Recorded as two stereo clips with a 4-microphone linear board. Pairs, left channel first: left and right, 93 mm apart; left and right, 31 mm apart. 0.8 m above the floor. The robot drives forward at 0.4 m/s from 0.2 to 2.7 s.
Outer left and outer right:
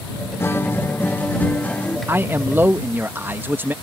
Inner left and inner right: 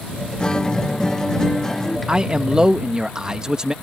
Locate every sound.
0.4 s a guitar: 25° left (ahead or behind); by 2.0 s 15° left (ahead or behind)
2.1 s a man speaking: 25° right (ahead or behind)